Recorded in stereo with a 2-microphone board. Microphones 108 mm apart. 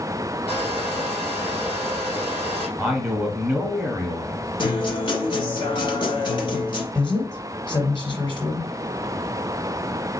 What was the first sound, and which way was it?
A hair dryer, 60° left (ahead or behind).